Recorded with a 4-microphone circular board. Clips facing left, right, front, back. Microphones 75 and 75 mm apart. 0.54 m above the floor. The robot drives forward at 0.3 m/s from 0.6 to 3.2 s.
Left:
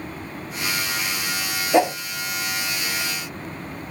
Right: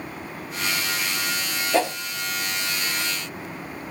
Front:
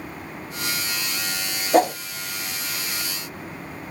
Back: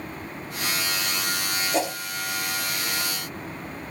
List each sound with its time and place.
1.7 s a whoosh: 20° left, 0.5 m; by 1.9 s 25° left, 0.5 m